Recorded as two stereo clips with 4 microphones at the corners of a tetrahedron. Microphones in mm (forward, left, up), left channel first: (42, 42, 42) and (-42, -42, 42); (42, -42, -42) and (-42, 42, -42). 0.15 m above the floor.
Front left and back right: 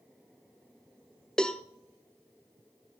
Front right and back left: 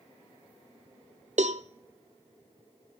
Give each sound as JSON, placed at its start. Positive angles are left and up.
{"t": 1.4, "sound": "a cowbell", "azimuth_deg": 130, "distance_m": 0.5}